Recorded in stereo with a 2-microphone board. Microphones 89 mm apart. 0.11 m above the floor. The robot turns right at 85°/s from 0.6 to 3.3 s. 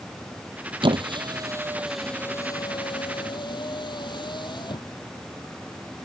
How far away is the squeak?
About 0.8 m.